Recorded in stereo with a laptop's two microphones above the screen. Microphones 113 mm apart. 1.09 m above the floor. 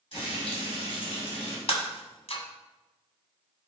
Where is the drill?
No drill in this recording.